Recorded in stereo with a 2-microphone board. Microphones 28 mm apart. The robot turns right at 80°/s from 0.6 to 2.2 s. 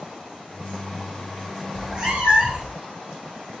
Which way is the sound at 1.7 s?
165° right.